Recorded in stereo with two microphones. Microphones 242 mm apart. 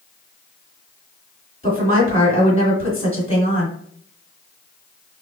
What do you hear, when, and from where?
1.6 s a woman speaking: 25° left (ahead or behind), 2.0 m